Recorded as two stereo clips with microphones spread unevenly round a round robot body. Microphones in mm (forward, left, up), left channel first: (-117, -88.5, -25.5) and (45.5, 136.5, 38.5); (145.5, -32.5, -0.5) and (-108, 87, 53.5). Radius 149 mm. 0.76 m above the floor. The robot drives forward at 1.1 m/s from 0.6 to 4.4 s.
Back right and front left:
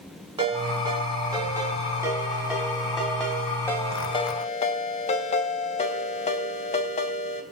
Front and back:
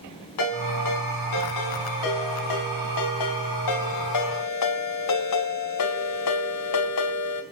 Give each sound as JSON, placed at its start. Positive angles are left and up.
{"t": 0.4, "sound": "a ringtone", "azimuth_deg": -20, "distance_m": 6.0}